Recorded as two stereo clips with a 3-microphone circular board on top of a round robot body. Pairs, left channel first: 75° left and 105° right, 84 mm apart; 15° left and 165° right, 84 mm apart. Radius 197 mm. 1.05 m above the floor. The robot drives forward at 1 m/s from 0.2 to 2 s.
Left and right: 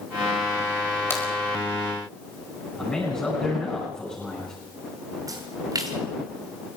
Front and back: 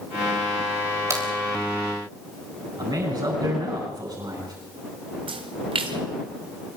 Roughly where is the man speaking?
Behind left.